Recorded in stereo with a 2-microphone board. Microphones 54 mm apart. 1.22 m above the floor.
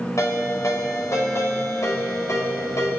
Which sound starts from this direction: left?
A ringtone, at 0.2 s.